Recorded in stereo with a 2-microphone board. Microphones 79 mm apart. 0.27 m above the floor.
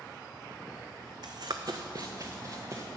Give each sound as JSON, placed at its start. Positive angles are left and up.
{"t": 1.2, "sound": "running footsteps", "side_deg": -60, "distance_m": 0.6}